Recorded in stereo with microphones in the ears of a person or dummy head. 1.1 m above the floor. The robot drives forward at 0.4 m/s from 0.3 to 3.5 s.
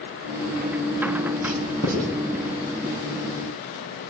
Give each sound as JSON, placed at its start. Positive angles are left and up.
{"t": 1.4, "sound": "writing", "side_deg": -50, "distance_m": 5.0}